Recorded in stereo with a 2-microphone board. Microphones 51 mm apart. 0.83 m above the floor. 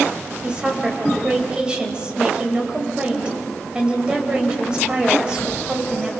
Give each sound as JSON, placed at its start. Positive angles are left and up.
{"t": 0.4, "sound": "a woman speaking", "side_deg": -15, "distance_m": 4.0}